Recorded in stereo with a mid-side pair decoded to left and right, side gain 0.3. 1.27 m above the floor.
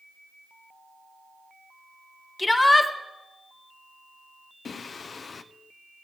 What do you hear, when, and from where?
2.4 s a shout: 25° left, 1.7 m
4.7 s singing: 60° left, 0.5 m